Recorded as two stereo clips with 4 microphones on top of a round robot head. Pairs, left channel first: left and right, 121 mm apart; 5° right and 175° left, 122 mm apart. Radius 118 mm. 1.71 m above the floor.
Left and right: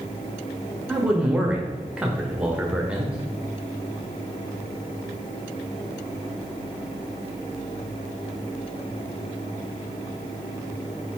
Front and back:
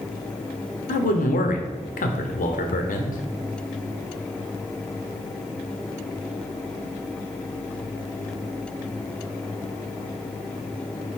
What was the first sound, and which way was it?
A man speaking, 5° right.